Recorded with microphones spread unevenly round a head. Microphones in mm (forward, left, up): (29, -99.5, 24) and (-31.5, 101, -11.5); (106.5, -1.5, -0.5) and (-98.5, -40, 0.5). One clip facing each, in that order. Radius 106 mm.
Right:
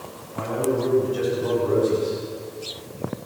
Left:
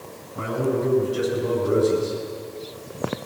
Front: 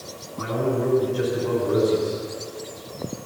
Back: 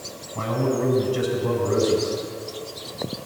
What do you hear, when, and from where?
0.3 s a man speaking: 175° left, 9 m